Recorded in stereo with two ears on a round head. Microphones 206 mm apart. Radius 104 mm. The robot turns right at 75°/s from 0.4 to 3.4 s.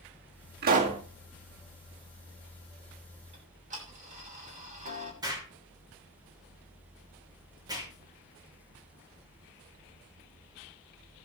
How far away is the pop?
About 1.9 m.